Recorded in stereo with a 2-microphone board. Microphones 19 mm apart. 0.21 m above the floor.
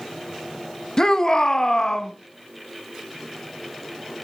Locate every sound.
1.0 s a shout: 30° left (ahead or behind), 1.4 m